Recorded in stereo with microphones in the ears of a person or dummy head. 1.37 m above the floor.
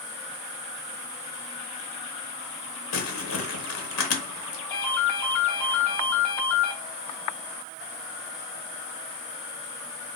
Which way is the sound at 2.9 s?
80° left.